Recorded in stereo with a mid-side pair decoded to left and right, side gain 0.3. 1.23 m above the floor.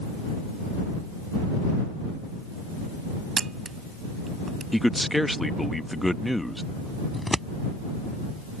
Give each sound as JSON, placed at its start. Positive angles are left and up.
{"t": 3.4, "sound": "a camera shutter", "azimuth_deg": -55}
{"t": 4.7, "sound": "a man speaking", "azimuth_deg": 5}
{"t": 7.1, "sound": "scissors", "azimuth_deg": 10}